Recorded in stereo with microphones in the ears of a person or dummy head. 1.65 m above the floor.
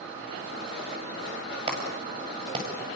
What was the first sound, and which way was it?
A clap, 35° right (ahead or behind).